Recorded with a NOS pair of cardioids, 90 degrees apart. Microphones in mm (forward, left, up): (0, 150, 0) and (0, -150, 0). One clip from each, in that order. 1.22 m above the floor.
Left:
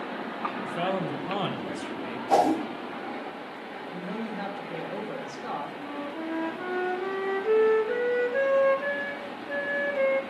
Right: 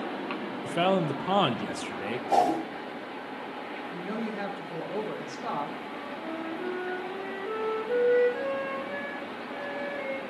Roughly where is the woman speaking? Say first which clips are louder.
Even; ahead.